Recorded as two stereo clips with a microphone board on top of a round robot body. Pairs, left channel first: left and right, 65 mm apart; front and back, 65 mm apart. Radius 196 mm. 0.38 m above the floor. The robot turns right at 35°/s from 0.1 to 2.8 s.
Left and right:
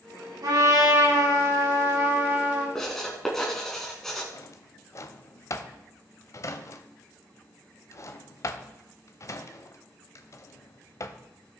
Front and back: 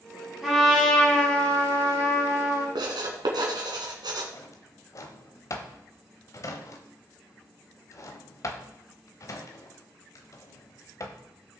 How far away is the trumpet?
About 6 m.